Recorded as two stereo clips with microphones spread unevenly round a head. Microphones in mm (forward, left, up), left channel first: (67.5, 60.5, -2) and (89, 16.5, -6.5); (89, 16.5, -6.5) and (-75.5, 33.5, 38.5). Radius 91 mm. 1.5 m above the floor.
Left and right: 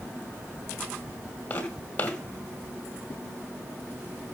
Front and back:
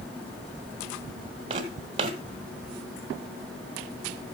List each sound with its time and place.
1.5 s footsteps: 160° left, 2.0 m